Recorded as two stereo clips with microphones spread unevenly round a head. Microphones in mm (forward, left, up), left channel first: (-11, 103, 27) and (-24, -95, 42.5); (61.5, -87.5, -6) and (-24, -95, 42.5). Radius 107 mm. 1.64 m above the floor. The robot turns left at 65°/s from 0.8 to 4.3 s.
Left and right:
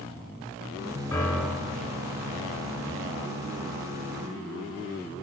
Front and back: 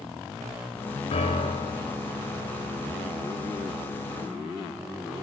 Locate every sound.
1.1 s a piano: 15° left, 3 m; by 1.9 s 40° right, 3 m